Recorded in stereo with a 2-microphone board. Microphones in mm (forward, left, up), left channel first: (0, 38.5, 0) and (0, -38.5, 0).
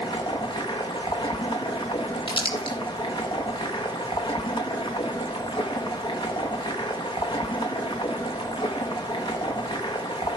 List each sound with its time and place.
0.0 s running water: 75° left (ahead or behind), 1.8 m
2.3 s crumpling: 85° left, 3.5 m